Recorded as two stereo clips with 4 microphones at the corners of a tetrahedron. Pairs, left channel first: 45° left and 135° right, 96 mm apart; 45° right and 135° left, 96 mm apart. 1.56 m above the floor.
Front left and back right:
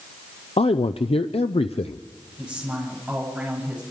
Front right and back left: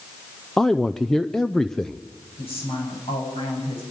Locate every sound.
0.6 s a man speaking: 40° left, 0.6 m
2.4 s a woman speaking: 55° right, 8 m